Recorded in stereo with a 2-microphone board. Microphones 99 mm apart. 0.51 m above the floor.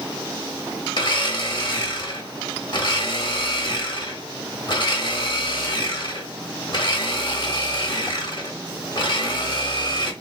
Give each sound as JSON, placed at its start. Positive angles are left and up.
{"t": 1.0, "sound": "a blender", "side_deg": 50, "distance_m": 0.9}